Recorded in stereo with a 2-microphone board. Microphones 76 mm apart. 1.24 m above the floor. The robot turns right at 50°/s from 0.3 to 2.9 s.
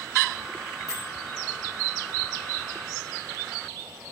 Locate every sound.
0.9 s a bell: 50° right (ahead or behind), 1.3 m; by 1.1 s 60° right (ahead or behind), 1.3 m